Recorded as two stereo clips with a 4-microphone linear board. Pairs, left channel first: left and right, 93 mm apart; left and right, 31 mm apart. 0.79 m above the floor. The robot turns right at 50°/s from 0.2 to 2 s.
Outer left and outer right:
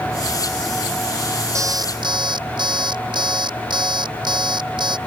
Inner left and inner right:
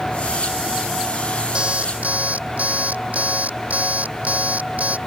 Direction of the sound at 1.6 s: 35° right (ahead or behind).